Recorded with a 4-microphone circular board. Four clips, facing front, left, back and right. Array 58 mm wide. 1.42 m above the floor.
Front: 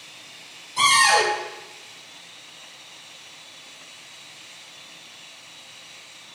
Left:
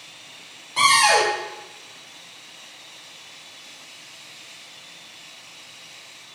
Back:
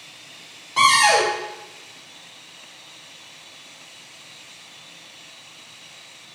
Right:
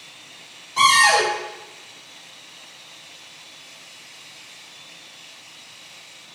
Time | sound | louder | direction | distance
0.8 | a cupboard door | right 2 dB, back 2 dB | 170° left | 1.9 m